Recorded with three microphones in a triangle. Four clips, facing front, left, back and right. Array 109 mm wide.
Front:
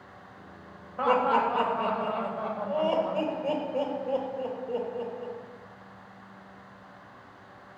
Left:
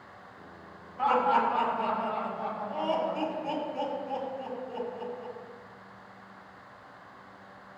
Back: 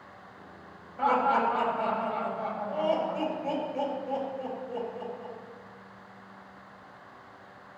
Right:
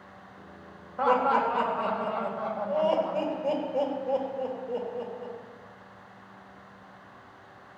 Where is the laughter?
45° right, 4 m.